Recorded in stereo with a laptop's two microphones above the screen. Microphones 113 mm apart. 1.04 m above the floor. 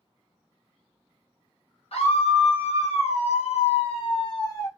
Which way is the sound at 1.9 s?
65° left (ahead or behind).